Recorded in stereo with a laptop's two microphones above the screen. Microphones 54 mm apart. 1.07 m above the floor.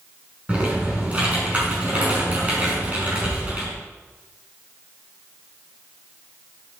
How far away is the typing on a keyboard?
About 5 m.